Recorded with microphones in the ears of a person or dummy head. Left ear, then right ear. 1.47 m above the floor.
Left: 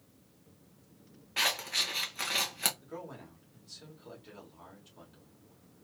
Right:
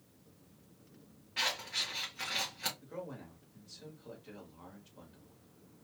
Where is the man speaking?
5° left (ahead or behind), 1.3 m.